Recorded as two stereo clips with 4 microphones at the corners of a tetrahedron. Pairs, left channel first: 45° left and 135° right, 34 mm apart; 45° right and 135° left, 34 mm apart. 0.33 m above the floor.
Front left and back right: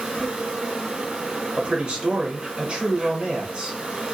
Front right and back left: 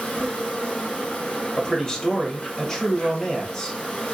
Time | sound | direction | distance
0.0 | an insect | 90° right | 2 m
1.6 | a man speaking | 100° right | 1.0 m